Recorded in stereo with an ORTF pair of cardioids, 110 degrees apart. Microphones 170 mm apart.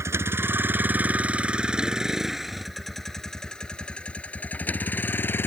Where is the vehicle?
15° right; by 5.5 s 10° left.